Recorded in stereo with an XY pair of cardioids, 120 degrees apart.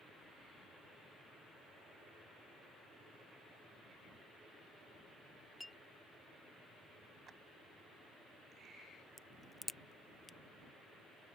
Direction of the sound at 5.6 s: 5° left.